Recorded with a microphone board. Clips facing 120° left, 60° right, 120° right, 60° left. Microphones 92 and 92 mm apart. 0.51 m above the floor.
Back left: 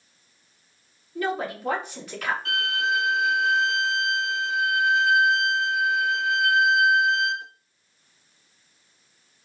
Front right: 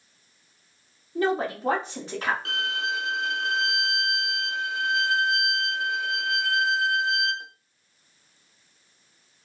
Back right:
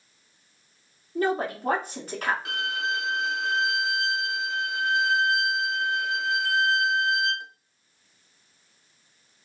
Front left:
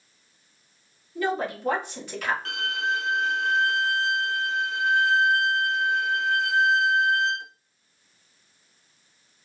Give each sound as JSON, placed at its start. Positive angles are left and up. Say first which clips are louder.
{"t": 1.1, "sound": "a woman speaking", "louder": "front right 3 dB, back right 1 dB", "azimuth_deg": -100, "distance_m": 1.1}
{"t": 2.5, "sound": "a violin", "louder": "back left 3 dB, front left 1 dB", "azimuth_deg": -35, "distance_m": 0.9}